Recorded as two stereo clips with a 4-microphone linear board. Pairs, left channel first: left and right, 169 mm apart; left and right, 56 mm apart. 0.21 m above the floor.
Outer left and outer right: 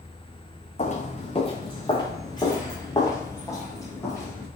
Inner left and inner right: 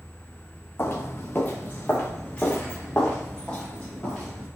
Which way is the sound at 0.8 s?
45° left (ahead or behind).